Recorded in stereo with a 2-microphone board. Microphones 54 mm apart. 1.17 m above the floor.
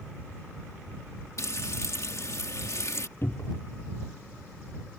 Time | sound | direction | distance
1.4 | frying | 60° left (ahead or behind) | ?
3.2 | a cupboard door | 45° left (ahead or behind) | ?